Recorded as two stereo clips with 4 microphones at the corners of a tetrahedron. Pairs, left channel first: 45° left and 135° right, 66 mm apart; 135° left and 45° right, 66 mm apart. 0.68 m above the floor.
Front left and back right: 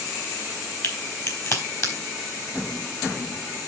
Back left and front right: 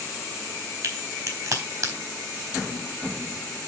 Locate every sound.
0.8 s a crack: 5° left, 3.5 m